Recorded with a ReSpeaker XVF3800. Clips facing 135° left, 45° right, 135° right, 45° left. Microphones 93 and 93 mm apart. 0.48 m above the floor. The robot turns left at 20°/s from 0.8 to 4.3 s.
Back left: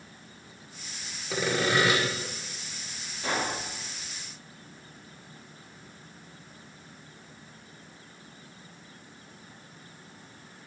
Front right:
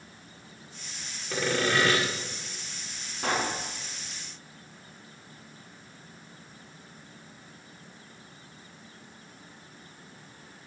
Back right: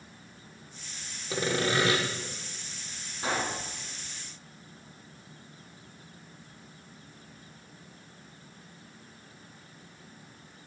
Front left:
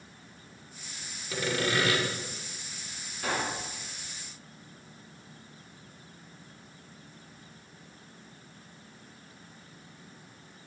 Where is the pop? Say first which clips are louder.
Front right 1 dB, back right 1 dB; 70° right, 3 m; by 3.6 s 80° right, 3 m.